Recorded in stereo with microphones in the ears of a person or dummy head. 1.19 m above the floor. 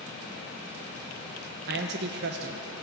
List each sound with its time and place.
1.7 s a man speaking: 55° right (ahead or behind), 0.9 m